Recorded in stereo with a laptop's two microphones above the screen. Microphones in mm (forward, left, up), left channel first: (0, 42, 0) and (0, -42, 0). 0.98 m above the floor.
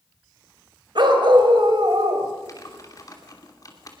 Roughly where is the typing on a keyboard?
Left.